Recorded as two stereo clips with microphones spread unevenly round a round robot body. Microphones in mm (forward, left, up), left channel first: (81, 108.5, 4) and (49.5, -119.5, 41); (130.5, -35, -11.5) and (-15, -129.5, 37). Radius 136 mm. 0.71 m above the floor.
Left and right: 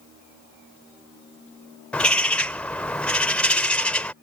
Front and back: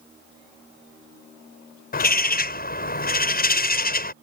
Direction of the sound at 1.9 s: 5° right.